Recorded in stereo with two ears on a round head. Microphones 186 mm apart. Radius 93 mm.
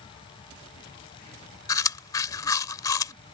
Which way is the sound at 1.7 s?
15° left (ahead or behind).